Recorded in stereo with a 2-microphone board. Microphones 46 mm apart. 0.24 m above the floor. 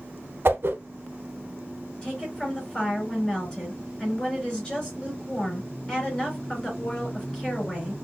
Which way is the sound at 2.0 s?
15° left (ahead or behind).